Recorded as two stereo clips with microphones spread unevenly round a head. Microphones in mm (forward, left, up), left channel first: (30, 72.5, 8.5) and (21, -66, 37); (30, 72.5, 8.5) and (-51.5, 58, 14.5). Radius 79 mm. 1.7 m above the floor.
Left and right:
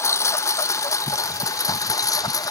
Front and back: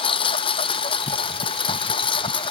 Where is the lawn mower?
15° left; by 2.5 s 20° left.